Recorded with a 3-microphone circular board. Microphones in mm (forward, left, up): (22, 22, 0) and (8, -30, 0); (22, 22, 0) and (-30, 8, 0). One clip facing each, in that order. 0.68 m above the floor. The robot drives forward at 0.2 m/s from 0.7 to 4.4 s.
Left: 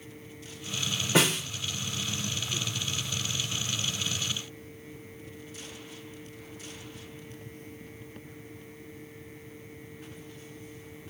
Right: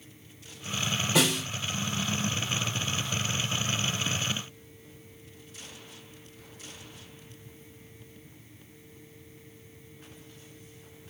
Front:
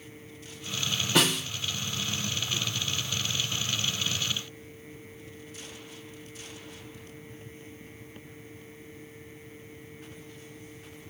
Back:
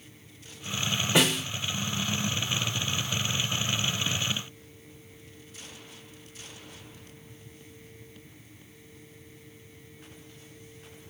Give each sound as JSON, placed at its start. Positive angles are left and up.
{"t": 1.1, "sound": "a snare drum", "azimuth_deg": 125, "distance_m": 3.0}